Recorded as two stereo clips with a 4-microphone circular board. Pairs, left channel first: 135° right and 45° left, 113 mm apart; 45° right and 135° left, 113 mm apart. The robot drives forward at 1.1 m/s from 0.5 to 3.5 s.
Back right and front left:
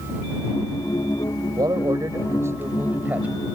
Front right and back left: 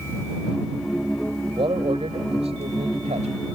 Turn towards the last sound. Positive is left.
turn(degrees=125)